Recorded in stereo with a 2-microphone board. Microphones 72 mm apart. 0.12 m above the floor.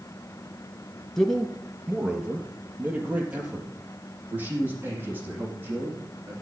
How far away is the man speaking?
About 1.5 m.